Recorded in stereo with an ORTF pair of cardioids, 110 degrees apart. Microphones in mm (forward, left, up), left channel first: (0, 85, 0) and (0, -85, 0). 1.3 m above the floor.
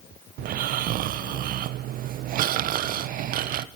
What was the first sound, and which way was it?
Snoring, 65° right.